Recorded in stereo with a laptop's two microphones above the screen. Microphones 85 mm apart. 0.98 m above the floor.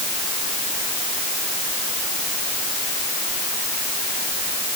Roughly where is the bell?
I don't hear a bell.